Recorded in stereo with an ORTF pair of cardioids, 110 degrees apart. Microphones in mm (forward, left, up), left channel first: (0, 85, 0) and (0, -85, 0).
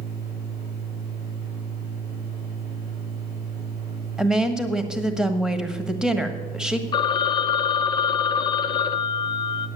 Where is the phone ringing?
25° left, 0.7 m.